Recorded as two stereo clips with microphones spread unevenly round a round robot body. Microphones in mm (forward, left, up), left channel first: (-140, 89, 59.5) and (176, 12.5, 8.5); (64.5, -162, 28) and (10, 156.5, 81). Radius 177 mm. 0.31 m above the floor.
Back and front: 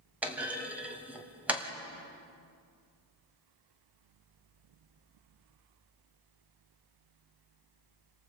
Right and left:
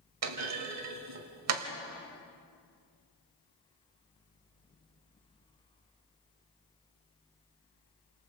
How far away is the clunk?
About 2 m.